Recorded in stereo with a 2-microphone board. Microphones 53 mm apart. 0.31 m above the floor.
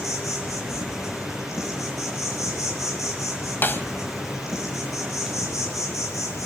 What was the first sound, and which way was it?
An insect, 80° left.